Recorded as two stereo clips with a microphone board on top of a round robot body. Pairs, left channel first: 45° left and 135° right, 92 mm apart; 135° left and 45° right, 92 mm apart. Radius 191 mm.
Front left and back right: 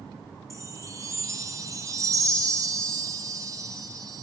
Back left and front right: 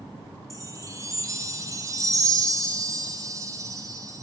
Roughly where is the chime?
Right.